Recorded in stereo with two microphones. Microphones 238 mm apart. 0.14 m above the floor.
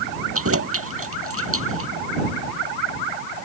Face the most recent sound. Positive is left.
turn(degrees=-65)  # may be behind; listen again after turning